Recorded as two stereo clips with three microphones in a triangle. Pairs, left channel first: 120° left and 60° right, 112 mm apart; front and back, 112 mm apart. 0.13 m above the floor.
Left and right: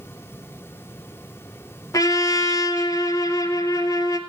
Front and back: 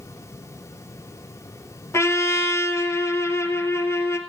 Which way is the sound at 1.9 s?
65° left.